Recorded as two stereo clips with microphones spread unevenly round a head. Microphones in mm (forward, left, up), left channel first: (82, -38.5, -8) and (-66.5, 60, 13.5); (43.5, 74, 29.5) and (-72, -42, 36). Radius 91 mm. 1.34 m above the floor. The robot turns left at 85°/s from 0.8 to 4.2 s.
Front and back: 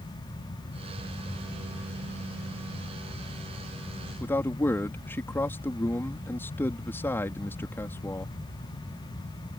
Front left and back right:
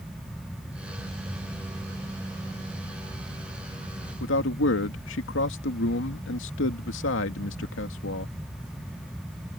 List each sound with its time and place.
4.2 s a man speaking: 45° left